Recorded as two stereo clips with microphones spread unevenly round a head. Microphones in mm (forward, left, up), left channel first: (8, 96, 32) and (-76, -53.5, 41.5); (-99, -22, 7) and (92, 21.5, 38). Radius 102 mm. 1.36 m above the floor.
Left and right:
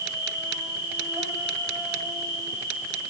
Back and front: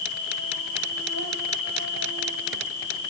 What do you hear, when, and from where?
0.0 s an insect: 165° left, 3.5 m